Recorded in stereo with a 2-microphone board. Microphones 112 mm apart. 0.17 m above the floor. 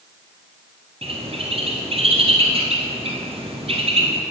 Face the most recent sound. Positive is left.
turn(degrees=-60)  # may be behind; listen again after turning